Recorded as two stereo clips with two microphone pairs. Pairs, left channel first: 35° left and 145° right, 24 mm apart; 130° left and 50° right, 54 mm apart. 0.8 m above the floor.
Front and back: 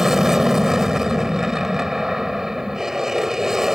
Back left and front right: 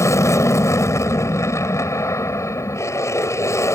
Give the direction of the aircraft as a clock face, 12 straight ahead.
7 o'clock.